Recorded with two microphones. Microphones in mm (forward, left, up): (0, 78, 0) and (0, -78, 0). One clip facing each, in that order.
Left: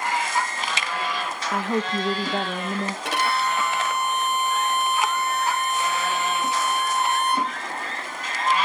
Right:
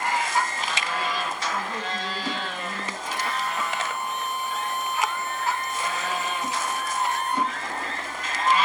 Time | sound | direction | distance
1.5 | a woman speaking | 80° left | 1.4 m
3.0 | a violin | 75° left (ahead or behind) | 1.0 m